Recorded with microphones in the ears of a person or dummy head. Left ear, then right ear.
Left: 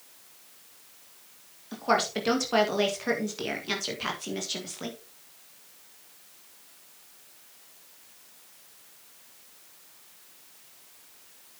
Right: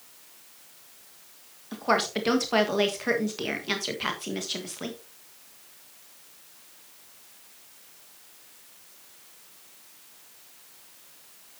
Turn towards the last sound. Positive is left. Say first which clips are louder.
# right 1 dB
turn(degrees=-10)  # may be behind; listen again after turning